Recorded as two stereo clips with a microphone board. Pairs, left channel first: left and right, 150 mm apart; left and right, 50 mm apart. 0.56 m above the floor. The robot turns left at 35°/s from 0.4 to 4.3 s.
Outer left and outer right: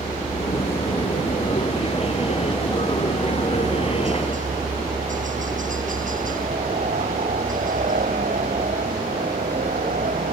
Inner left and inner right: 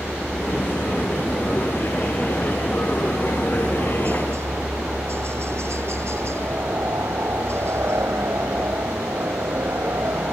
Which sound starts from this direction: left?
A helicopter, at 0.0 s.